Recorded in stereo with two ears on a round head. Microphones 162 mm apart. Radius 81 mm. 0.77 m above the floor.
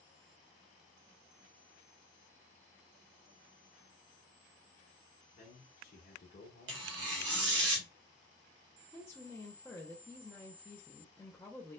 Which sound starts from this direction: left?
A man speaking, at 5.3 s.